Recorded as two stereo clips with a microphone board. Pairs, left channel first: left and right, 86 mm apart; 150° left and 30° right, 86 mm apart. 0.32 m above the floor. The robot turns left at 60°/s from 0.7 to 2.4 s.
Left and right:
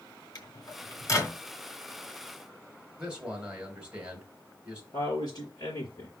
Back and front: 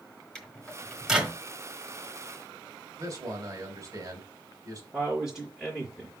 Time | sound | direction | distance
0.3 | a microwave | 75° left | 1.4 m
3.0 | a man speaking | 20° right | 2 m
4.9 | a man speaking | 50° left | 4 m